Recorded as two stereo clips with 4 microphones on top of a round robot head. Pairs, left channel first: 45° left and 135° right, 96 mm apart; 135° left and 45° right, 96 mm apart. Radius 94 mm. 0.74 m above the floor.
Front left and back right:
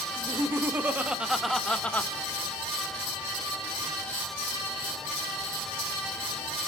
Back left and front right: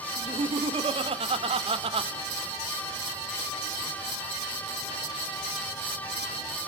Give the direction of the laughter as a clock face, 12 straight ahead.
2 o'clock.